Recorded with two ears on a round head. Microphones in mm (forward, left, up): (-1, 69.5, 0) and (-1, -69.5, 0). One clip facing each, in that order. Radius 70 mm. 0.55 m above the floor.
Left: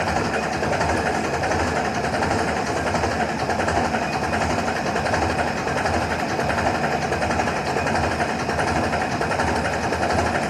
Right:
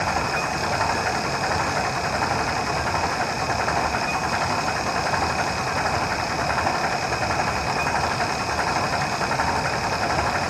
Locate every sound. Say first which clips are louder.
0.0 s an engine running: left 2 dB; 35° left (ahead or behind)